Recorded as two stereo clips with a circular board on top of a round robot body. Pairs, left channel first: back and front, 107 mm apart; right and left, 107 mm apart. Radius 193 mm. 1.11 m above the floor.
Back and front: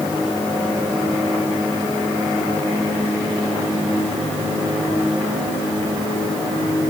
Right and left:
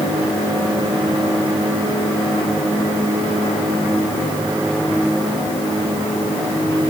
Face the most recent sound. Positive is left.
No sound to turn to.